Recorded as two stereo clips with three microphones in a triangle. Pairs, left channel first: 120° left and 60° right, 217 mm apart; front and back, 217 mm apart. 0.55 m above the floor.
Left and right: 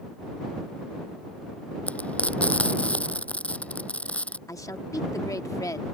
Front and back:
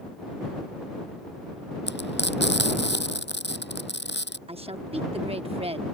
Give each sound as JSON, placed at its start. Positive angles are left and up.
{"t": 1.9, "sound": "frying", "azimuth_deg": 35}
{"t": 4.5, "sound": "a woman speaking", "azimuth_deg": 180}